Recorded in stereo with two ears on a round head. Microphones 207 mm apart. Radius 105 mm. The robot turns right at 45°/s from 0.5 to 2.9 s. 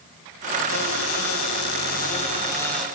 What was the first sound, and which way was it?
A cupboard door, 80° left.